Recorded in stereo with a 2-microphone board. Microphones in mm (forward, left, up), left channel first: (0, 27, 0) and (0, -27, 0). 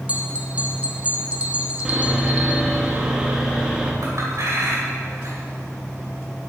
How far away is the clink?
About 2.5 m.